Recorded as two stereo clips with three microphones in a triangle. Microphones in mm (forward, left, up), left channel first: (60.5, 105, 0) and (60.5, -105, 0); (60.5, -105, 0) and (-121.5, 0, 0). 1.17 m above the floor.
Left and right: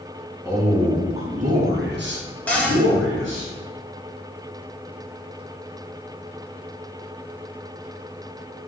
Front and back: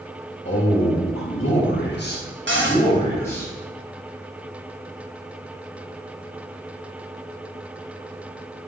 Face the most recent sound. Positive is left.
turn(degrees=175)